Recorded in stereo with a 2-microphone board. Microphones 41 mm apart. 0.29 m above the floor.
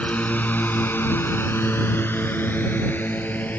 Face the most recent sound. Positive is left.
turn(degrees=45)  # may be behind; listen again after turning